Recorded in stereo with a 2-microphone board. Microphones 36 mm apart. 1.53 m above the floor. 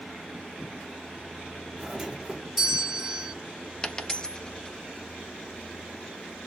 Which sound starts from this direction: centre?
A doorbell, at 1.8 s.